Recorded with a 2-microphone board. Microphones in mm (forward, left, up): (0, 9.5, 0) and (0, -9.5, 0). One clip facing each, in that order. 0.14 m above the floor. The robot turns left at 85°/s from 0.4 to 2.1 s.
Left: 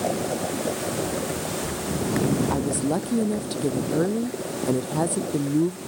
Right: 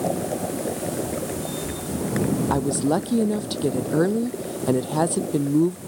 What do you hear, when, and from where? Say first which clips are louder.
1.0 s running footsteps: left 1 dB; 60° left (ahead or behind); by 3.5 s 75° left (ahead or behind)
2.5 s a woman speaking: right 3 dB; 20° right (ahead or behind)